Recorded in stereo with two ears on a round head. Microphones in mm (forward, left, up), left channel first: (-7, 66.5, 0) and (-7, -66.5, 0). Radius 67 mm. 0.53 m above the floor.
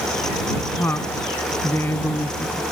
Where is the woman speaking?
15° left (ahead or behind).